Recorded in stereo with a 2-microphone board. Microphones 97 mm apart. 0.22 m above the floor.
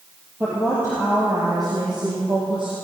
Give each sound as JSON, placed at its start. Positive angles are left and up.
{"t": 0.4, "sound": "a woman speaking", "side_deg": -20, "distance_m": 4.5}